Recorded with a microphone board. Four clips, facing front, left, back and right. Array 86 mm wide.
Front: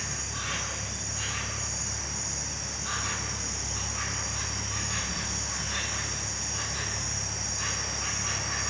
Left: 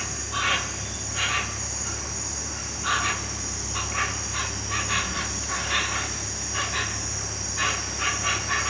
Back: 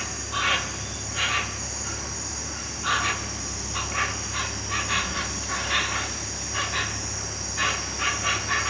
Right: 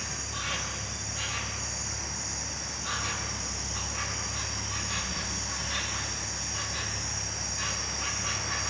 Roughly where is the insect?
Behind left.